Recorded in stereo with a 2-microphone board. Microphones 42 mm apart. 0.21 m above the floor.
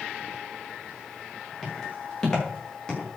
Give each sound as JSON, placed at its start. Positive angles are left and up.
{"t": 1.6, "sound": "footsteps", "side_deg": 10, "distance_m": 8.5}